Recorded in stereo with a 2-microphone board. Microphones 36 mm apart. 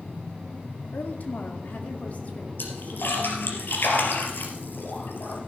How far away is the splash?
About 3 m.